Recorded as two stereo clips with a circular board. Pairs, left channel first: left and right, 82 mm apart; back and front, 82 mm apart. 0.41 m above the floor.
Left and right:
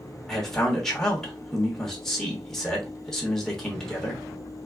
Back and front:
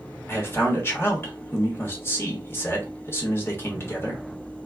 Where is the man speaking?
170° left, 1.1 m.